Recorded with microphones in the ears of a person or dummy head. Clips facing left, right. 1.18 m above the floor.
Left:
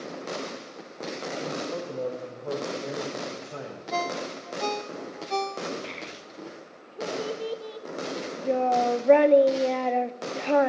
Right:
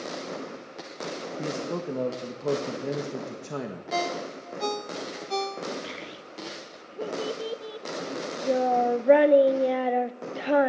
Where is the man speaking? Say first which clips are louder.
Right 3 dB; 75° right (ahead or behind), 1.3 m.